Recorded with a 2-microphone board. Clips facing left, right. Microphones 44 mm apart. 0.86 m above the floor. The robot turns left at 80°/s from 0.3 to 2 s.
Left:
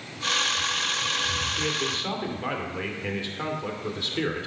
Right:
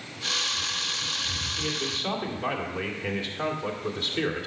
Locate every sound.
1.6 s a man speaking: 30° left, 2 m; by 4.5 s straight ahead, 2 m